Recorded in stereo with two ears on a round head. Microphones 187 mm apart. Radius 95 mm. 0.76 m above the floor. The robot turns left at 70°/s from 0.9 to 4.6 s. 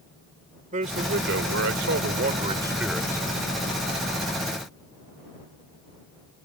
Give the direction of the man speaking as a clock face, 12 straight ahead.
1 o'clock.